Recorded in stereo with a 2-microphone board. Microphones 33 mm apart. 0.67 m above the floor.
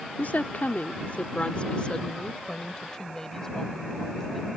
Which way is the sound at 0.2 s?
60° left (ahead or behind).